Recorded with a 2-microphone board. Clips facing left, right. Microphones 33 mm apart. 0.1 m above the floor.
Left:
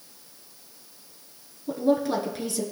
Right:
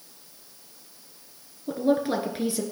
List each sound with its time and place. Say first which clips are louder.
1.7 s a woman speaking: even; 25° right (ahead or behind), 1.1 m